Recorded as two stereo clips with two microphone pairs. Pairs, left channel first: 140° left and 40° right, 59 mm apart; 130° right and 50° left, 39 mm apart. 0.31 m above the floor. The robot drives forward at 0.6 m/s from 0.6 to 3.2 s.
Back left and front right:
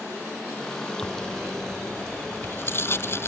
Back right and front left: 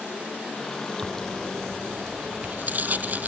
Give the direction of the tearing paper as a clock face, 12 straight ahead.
9 o'clock.